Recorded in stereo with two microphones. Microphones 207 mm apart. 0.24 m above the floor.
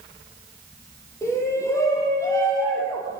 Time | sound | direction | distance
1.2 | a shout | 15° left (ahead or behind) | 9.5 m